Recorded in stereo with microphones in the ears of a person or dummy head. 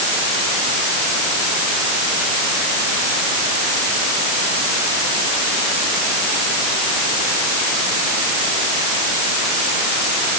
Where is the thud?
I don't hear a thud.